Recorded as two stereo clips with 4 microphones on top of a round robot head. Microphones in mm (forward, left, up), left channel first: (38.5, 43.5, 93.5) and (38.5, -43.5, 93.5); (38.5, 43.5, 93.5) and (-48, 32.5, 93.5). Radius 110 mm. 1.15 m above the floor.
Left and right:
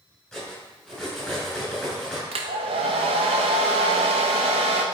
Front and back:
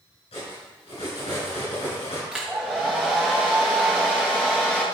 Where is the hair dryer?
90° right, 0.9 m.